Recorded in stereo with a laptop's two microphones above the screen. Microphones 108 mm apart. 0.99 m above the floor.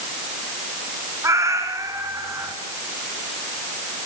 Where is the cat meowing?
30° right (ahead or behind), 1.7 m.